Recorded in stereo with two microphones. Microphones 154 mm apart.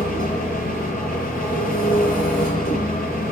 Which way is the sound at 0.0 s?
65° left (ahead or behind).